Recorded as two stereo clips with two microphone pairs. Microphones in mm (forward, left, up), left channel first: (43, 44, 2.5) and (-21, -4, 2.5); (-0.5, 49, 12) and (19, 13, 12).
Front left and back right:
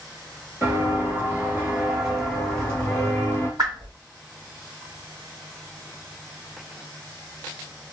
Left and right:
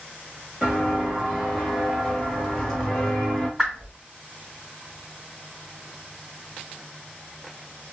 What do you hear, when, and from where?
0.6 s footsteps: 135° right, 1.7 m; by 3.5 s 40° left, 1.6 m
3.6 s a whoosh: 145° right, 2 m